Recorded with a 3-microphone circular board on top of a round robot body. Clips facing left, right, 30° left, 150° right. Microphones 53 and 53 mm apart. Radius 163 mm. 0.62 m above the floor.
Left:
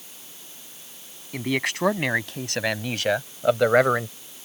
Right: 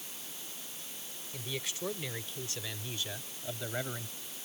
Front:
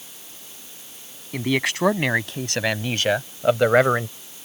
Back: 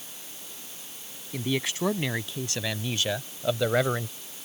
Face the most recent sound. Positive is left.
turn(degrees=75)